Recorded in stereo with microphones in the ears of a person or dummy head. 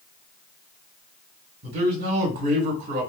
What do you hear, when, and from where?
1.6 s a man speaking: 40° right (ahead or behind), 1.1 m